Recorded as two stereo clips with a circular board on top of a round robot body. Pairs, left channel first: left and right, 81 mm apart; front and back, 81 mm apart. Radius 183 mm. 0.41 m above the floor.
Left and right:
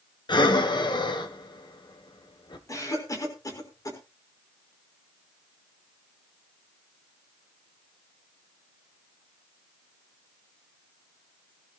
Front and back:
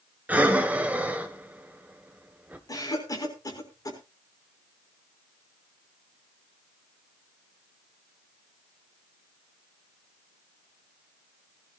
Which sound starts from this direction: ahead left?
A cough, at 2.7 s.